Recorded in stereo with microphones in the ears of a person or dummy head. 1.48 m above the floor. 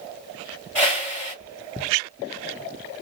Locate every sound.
0.8 s a whoosh: 5° left (ahead or behind), 1.4 m